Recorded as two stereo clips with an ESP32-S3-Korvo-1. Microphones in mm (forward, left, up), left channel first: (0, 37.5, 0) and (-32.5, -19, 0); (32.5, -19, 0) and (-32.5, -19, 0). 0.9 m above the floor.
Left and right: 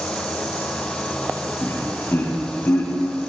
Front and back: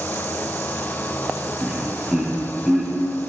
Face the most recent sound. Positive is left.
turn(degrees=95)